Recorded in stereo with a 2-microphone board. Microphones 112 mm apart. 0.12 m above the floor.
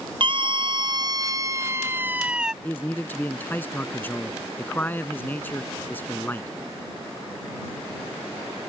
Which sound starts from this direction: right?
A scream, at 0.2 s.